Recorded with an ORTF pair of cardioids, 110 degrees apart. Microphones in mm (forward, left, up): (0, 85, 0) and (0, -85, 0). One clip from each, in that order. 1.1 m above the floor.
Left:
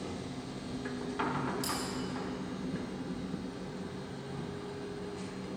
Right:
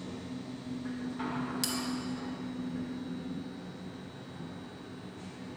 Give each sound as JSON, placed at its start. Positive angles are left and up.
{"t": 0.0, "sound": "a machine running", "azimuth_deg": 50, "distance_m": 0.7}
{"t": 1.6, "sound": "a bell", "azimuth_deg": -60, "distance_m": 1.2}